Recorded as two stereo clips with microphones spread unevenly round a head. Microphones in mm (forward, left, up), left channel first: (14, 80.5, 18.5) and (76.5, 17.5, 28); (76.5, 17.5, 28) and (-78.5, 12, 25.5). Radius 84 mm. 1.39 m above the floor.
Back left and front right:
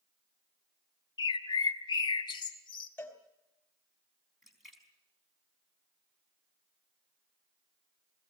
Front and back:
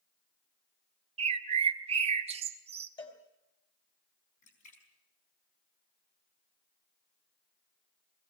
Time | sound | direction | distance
1.2 | a bird | 150° left | 1.0 m
3.0 | a cowbell | 60° left | 3 m
4.4 | a splash | 45° left | 4.5 m